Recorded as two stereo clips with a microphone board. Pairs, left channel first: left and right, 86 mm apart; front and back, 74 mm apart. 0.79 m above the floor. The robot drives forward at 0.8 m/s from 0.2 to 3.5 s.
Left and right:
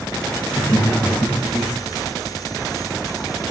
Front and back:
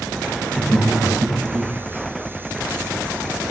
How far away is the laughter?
About 1.0 m.